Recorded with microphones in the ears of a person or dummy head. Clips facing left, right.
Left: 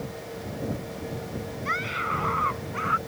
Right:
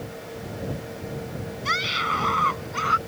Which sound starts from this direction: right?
A scream, at 1.6 s.